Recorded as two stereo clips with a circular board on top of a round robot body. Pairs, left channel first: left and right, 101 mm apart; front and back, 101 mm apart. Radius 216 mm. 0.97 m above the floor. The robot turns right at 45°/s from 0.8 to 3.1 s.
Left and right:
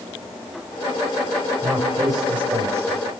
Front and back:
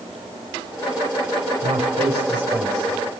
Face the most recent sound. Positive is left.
turn(degrees=-95)